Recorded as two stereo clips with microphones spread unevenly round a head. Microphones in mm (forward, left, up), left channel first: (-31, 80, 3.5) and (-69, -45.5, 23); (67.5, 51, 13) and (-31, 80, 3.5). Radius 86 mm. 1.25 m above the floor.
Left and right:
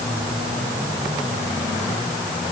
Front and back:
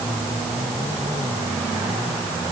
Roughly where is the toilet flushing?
I don't hear a toilet flushing.